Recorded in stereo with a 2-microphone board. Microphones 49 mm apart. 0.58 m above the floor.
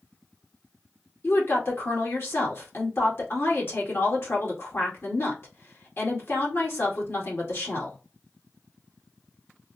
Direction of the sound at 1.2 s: 50° left (ahead or behind).